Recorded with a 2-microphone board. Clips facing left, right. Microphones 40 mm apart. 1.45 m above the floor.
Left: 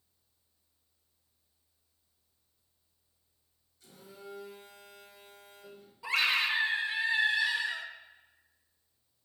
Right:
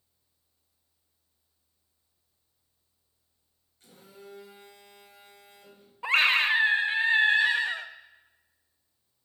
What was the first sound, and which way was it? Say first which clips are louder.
A phone buzzing: even; 45° right (ahead or behind).